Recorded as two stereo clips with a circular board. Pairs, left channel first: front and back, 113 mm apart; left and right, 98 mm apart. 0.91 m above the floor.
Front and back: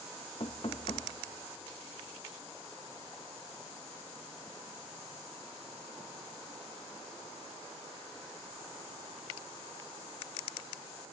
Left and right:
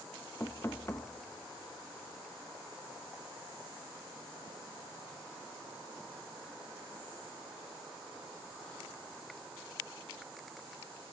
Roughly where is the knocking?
Ahead left.